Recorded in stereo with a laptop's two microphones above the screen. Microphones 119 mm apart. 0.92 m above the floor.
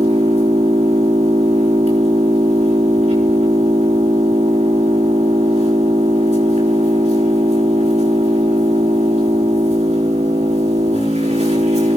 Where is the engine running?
70° right (ahead or behind), 5 m.